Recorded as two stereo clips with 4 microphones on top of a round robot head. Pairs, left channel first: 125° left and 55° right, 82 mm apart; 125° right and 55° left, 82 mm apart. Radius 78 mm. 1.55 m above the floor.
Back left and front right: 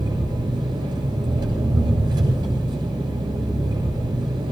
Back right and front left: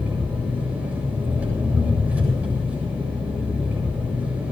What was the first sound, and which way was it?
An engine running, 20° right.